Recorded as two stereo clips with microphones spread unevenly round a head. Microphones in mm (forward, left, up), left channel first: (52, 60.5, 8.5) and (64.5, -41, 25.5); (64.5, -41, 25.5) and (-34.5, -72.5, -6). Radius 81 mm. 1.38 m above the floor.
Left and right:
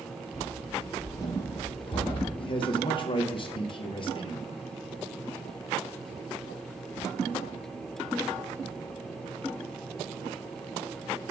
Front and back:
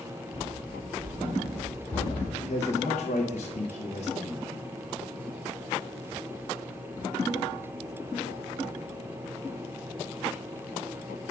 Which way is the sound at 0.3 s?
10° right.